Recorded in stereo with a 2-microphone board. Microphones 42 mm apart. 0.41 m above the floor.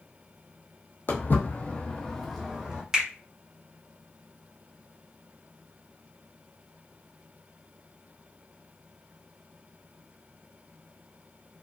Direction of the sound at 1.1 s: 60° left (ahead or behind).